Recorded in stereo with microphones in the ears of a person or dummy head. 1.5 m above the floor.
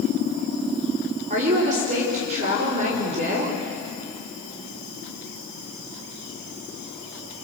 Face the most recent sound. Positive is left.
turn(degrees=-40)  # may be behind; listen again after turning